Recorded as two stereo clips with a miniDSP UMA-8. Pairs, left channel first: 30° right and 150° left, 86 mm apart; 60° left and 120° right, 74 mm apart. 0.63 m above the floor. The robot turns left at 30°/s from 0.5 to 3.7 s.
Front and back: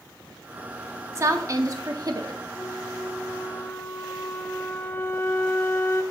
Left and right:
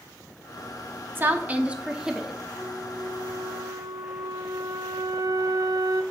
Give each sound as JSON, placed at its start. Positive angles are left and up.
{"t": 1.1, "sound": "a woman speaking", "azimuth_deg": -170, "distance_m": 0.8}
{"t": 2.6, "sound": "a flute", "azimuth_deg": -55, "distance_m": 0.6}